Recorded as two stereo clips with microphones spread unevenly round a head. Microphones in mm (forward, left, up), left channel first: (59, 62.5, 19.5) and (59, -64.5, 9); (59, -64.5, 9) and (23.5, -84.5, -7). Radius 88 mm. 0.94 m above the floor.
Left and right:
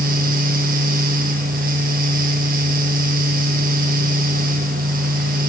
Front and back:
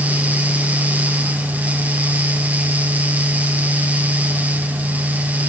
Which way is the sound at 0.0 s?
105° right.